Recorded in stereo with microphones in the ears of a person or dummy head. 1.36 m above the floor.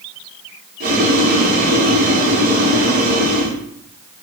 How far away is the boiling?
About 1.1 m.